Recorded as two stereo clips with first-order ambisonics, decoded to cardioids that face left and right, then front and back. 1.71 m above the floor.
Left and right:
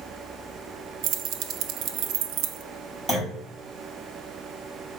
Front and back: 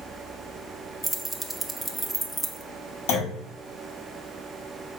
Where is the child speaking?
I don't hear a child speaking.